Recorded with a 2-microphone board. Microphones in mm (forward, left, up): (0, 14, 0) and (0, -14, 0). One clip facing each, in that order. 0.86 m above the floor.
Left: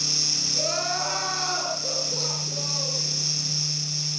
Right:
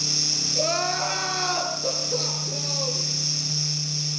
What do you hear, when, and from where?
0.6 s crying: 15° right (ahead or behind), 7.5 m